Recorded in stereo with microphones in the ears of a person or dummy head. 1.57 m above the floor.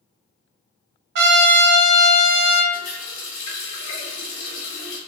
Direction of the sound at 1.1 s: 70° right (ahead or behind).